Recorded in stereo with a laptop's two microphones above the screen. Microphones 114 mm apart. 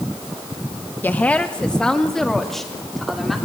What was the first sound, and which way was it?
A woman speaking, 15° left (ahead or behind).